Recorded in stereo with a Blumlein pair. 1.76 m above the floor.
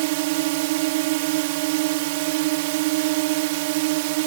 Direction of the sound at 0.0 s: 50° right.